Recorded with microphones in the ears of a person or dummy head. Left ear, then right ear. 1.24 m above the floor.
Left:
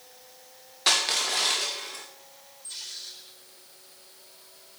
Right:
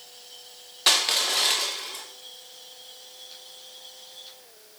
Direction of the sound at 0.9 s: 5° right (ahead or behind).